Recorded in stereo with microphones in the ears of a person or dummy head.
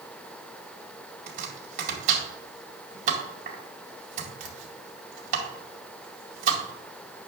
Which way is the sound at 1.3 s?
45° right (ahead or behind).